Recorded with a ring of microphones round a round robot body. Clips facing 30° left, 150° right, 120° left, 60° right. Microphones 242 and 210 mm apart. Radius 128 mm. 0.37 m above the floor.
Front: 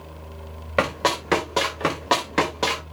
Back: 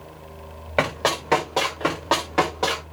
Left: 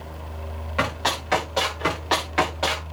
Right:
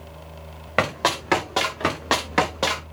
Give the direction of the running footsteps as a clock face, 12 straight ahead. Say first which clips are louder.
Even, right 3 dB; 1 o'clock.